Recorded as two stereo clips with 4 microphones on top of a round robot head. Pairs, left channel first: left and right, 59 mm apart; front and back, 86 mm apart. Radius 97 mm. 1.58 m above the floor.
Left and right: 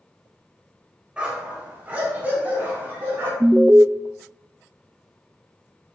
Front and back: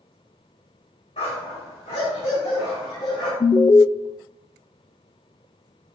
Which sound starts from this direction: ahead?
A dog barking, at 1.2 s.